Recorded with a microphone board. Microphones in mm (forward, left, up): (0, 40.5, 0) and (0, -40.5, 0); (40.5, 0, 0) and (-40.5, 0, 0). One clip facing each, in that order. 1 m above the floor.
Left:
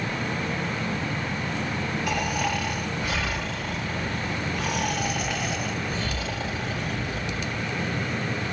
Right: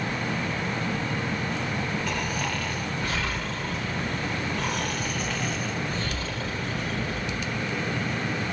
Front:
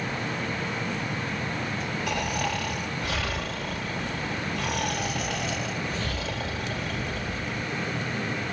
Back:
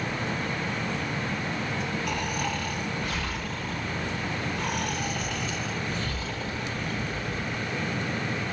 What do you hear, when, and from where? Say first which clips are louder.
2.1 s snoring: left 3 dB, front 1 dB; 10° left, 2.5 m